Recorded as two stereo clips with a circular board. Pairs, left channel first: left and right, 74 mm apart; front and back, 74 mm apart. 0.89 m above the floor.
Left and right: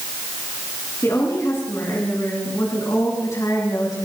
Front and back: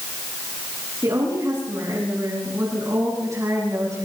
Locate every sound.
1.0 s a woman speaking: 140° left, 8 m; by 4.1 s 135° left, 5.5 m